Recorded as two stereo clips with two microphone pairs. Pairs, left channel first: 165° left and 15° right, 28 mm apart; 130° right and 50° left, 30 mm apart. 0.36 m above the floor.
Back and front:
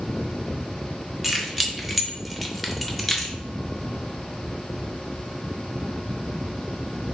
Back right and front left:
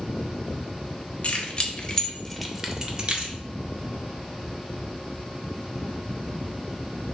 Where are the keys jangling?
95° right, 1.1 m; by 3.4 s 80° left, 0.9 m.